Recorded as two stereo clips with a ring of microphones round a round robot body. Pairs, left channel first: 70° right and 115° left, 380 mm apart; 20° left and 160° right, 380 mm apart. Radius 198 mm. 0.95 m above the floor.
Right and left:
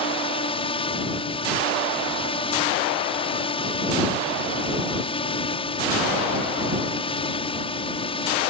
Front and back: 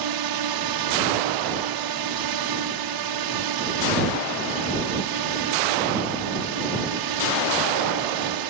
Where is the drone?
140° right.